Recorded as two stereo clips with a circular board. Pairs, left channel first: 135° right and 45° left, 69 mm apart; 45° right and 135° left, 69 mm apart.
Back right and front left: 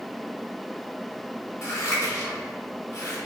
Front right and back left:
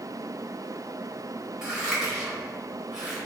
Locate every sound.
1.6 s scissors: 150° right, 1.0 m